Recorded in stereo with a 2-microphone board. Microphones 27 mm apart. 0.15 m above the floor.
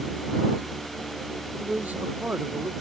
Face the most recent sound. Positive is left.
turn(degrees=-75)  # may be behind; listen again after turning